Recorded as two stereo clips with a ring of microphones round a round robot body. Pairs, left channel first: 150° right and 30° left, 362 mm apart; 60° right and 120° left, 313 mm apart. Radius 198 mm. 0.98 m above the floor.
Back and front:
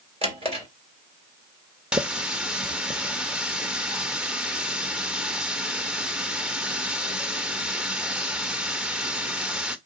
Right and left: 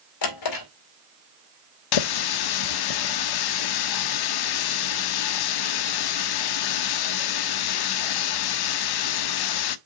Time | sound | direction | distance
0.2 | a drawer | 45° right | 2.5 m
1.9 | a running tap | 60° right | 0.6 m